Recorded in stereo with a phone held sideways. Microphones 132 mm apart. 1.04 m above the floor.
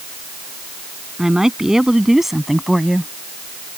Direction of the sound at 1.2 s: 5° right (ahead or behind).